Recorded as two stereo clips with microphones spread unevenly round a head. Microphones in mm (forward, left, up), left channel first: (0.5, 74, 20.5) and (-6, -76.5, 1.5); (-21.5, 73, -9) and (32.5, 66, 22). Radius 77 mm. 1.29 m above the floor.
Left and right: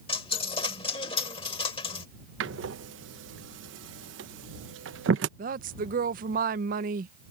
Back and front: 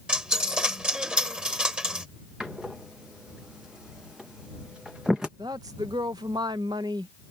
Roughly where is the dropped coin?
Ahead left.